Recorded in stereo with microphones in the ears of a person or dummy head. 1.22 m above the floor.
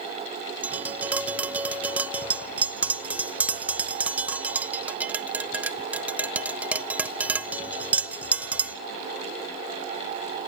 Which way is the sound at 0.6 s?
10° right (ahead or behind).